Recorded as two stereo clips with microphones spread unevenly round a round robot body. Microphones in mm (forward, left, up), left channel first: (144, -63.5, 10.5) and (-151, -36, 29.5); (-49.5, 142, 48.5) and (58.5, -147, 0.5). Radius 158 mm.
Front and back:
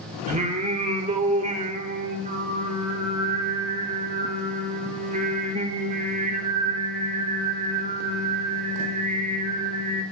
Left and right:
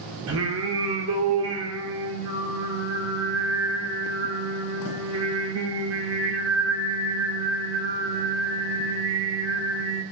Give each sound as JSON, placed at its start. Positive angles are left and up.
{"t": 0.3, "sound": "singing", "azimuth_deg": -120, "distance_m": 2.5}